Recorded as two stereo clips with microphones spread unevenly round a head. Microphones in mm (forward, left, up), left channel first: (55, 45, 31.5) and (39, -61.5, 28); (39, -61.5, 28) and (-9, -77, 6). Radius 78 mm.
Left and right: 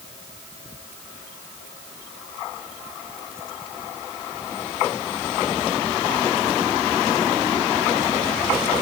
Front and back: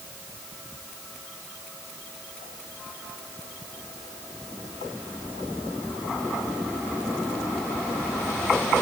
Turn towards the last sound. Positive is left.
No sound to turn to.